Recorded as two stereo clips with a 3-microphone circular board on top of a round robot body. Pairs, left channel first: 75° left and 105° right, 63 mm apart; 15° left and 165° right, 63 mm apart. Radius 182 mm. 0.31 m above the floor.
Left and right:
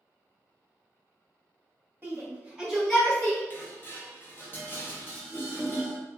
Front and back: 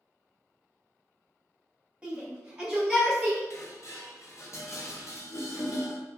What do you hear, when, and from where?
2.0 s a shout: 105° right, 1.6 m; by 3.4 s 110° left, 1.5 m
3.5 s dishes clattering: 25° left, 1.0 m